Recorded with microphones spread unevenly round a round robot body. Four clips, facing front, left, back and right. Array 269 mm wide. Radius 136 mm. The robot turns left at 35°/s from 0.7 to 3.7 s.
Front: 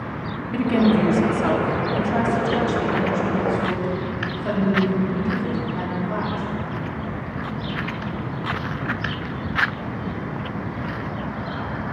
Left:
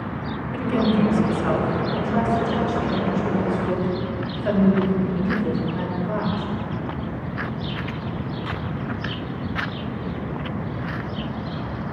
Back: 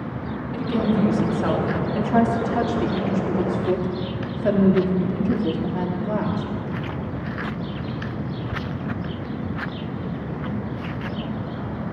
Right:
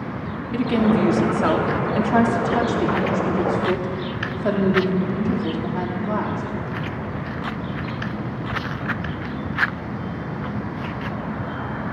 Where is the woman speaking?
45° right, 2.0 m; by 6.4 s 150° right, 2.0 m.